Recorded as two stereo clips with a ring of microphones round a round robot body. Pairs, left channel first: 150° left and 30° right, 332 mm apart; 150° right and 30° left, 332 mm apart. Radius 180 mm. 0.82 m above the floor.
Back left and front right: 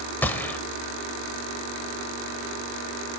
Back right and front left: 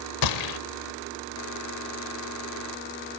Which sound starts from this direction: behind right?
A gunshot, at 0.2 s.